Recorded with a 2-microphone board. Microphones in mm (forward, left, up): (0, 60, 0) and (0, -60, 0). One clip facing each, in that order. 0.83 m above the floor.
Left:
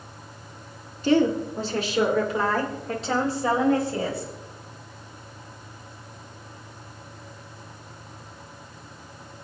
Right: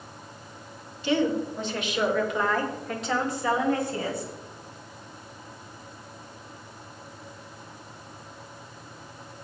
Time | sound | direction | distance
1.0 | a woman speaking | 45° left (ahead or behind) | 2 m